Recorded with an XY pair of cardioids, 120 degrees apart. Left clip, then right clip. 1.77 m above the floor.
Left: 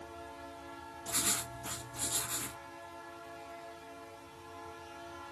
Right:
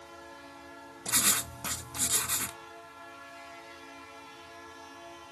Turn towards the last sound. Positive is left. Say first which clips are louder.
# right 6 dB
turn(degrees=-65)